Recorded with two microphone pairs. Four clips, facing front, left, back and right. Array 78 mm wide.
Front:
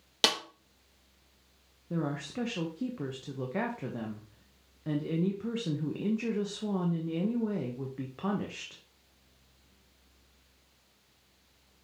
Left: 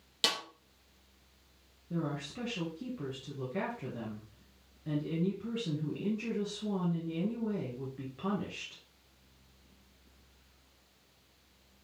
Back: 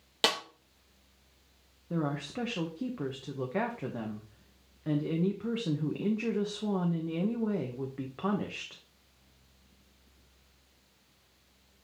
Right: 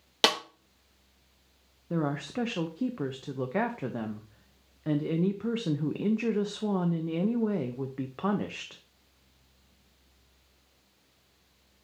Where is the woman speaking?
105° right, 0.8 m.